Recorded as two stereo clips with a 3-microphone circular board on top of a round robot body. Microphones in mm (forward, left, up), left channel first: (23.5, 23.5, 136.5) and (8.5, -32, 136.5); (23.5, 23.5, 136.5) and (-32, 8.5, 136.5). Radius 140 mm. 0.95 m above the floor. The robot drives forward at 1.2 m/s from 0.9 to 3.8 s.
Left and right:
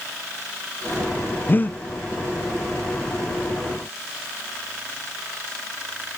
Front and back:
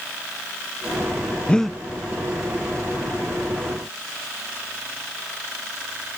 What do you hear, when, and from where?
1.5 s breathing: 70° left, 0.8 m; by 1.8 s 120° left, 0.8 m